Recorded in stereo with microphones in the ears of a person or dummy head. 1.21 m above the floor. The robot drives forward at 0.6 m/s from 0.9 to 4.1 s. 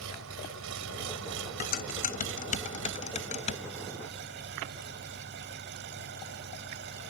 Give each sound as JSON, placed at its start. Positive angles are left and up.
{"t": 0.0, "sound": "an engine running", "side_deg": -75}
{"t": 1.6, "sound": "dishes clattering", "side_deg": 45}